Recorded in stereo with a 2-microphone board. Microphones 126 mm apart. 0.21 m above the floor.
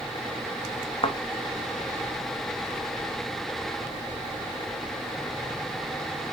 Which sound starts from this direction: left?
A thud, at 1.0 s.